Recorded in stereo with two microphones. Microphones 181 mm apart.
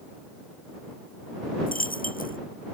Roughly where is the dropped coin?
Left.